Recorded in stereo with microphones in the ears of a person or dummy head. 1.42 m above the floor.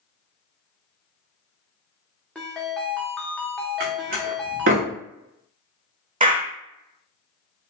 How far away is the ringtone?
About 0.5 m.